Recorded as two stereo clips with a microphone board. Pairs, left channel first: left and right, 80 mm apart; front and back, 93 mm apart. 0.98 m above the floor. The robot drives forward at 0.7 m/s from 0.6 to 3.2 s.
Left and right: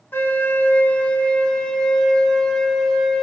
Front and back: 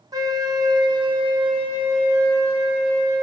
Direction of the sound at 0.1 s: 145° left.